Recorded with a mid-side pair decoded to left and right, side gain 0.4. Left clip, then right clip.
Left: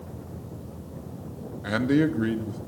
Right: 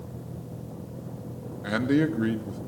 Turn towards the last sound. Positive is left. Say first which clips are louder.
# left 1 dB
turn(degrees=5)